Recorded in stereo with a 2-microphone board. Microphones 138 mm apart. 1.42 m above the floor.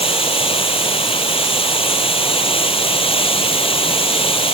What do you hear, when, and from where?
0.0 s running water: 45° left (ahead or behind)